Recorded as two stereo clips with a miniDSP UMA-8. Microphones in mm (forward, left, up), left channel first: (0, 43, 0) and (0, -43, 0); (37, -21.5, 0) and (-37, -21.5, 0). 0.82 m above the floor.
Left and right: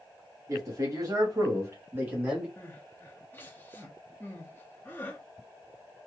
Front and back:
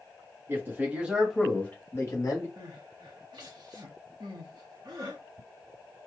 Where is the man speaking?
130° right, 1.6 m; by 2.5 s 15° right, 1.5 m.